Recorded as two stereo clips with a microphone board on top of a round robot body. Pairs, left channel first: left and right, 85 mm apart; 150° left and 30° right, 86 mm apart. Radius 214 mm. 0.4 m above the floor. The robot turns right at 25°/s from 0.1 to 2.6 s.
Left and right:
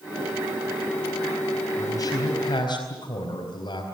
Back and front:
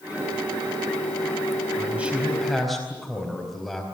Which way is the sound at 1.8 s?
40° left.